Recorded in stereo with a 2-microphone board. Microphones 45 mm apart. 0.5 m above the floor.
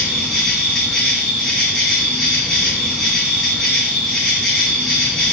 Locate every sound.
0.0 s an insect: centre (ahead or behind), 2 m